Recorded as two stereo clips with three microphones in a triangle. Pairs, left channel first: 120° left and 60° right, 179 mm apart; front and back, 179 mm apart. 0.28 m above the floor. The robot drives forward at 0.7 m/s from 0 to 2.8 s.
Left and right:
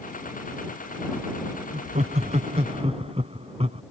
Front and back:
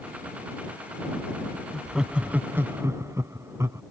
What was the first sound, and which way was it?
Laughter, 90° right.